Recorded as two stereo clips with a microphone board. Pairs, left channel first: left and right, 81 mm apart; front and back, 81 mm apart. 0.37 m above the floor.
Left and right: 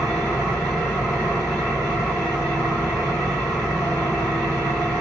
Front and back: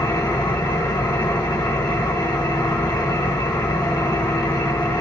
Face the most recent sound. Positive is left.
turn(degrees=0)